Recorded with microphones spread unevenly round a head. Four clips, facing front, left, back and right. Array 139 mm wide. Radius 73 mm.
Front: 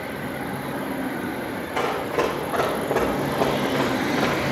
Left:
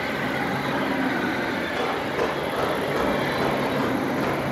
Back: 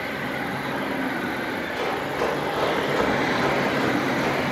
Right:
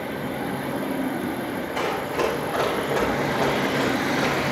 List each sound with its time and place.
1.8 s running footsteps: 5° right, 4.5 m; by 4.4 s 20° right, 3 m